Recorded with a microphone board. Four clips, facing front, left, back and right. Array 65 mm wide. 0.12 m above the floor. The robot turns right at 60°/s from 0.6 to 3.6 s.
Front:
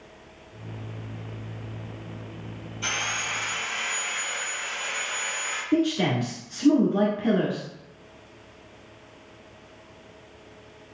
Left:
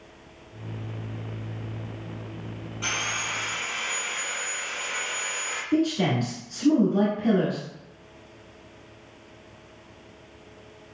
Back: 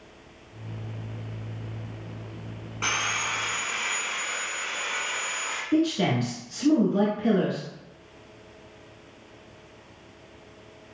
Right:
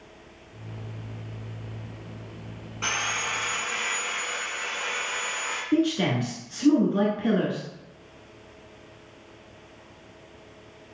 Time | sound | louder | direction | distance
2.8 | sawing | right 2 dB, back 2 dB | 160° right | 1.6 m
5.7 | a man speaking | even, even | 65° right | 1.1 m